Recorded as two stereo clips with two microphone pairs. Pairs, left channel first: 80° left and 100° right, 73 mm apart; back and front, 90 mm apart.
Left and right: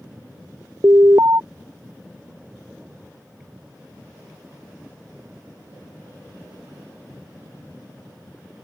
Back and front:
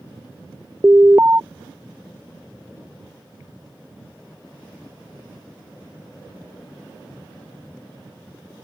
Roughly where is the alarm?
Ahead right.